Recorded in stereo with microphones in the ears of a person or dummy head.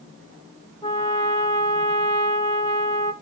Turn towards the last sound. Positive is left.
turn(degrees=20)  # may be behind; listen again after turning